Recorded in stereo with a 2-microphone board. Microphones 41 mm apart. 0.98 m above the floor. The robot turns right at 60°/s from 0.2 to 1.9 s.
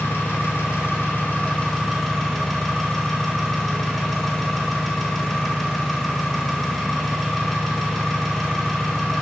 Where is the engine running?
70° left, 0.9 m; by 9.2 s 170° left, 0.9 m.